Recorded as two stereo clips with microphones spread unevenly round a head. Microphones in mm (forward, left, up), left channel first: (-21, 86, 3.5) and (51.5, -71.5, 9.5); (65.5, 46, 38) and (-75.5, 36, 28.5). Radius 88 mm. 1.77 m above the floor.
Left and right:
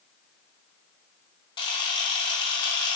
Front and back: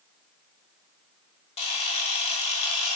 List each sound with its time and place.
1.6 s a camera shutter: 50° left, 0.8 m